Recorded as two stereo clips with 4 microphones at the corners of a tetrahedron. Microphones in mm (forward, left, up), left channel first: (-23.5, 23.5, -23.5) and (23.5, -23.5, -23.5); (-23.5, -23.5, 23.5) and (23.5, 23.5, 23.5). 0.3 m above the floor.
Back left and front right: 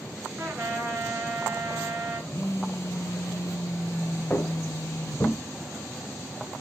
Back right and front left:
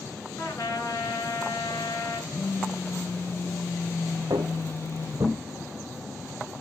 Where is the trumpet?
100° right, 2.5 m.